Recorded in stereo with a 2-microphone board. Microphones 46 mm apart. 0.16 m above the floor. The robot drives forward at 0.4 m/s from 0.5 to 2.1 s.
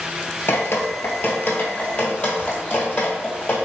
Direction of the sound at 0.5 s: 60° left (ahead or behind).